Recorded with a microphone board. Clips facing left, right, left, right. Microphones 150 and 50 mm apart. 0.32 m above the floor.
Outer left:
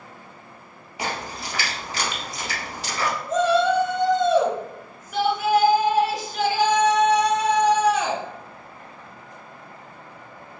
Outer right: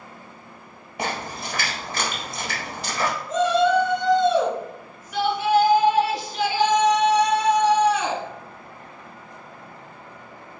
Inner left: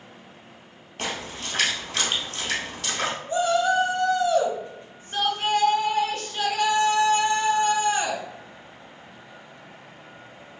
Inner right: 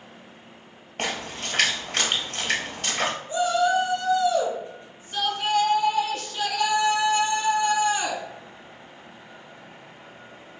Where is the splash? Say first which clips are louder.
Outer right 1 dB, inner right 2 dB; 55° right (ahead or behind), 1.9 m.